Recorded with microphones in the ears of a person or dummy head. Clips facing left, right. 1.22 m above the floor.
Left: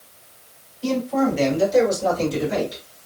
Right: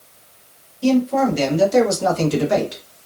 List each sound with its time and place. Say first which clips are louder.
0.8 s a man speaking: right 4 dB; 45° right (ahead or behind), 1.5 m; by 2.8 s 75° right (ahead or behind), 0.9 m